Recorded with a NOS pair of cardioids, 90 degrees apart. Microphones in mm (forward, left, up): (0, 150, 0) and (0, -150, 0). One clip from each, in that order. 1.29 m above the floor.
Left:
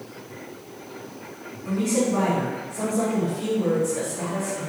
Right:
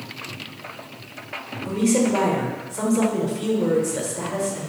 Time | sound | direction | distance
1.6 | a woman speaking | 45° right | 1.1 m